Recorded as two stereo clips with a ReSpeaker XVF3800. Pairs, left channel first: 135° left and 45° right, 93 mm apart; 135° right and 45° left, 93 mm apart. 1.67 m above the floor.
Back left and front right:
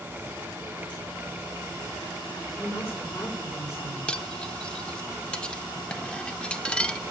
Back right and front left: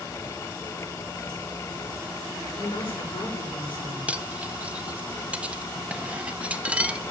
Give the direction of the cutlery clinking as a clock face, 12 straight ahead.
9 o'clock.